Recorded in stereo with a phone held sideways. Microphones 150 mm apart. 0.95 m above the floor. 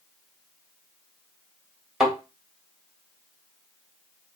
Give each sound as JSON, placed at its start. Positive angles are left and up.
{"t": 2.0, "sound": "a thud", "side_deg": -5, "distance_m": 2.0}